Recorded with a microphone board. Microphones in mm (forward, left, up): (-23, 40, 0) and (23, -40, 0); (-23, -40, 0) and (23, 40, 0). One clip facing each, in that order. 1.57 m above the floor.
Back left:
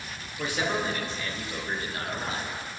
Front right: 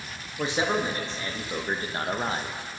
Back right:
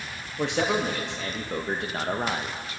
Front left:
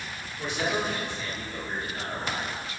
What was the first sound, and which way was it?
A man speaking, 125° right.